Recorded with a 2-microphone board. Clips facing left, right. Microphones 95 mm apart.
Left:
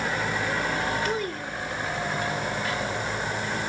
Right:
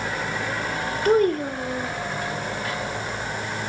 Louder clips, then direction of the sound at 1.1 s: Right 10 dB; 50° right (ahead or behind).